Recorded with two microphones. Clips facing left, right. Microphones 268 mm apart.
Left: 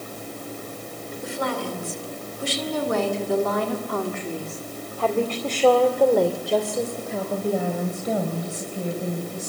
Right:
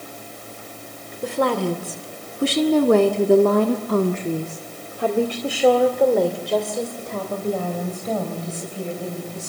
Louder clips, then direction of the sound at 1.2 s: Right 7 dB; 70° right (ahead or behind).